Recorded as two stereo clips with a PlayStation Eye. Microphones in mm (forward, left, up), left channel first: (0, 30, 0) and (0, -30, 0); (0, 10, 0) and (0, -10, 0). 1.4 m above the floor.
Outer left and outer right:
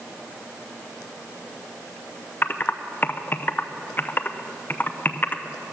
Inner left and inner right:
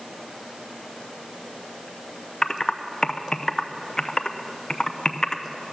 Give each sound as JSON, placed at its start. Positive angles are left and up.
{"t": 2.4, "sound": "typing on a keyboard", "side_deg": 30, "distance_m": 0.5}